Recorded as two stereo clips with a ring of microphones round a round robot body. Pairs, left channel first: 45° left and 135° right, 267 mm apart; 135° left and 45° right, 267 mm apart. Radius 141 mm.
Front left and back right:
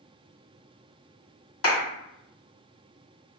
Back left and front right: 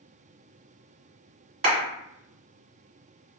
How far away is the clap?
About 1.9 m.